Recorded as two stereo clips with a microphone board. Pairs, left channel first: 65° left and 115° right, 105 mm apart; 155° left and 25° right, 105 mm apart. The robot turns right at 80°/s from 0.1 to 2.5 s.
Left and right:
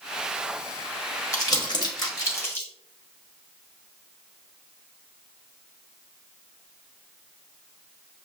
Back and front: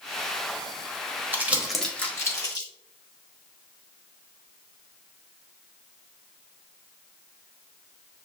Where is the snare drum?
No snare drum in this recording.